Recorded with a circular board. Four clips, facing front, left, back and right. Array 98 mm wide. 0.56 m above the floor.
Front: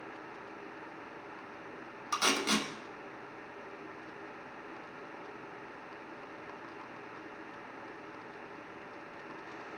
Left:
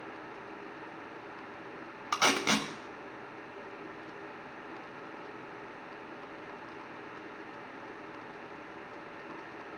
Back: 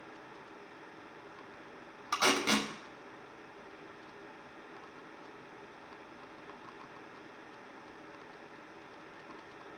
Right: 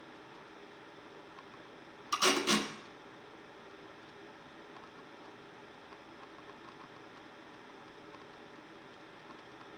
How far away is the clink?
I don't hear a clink.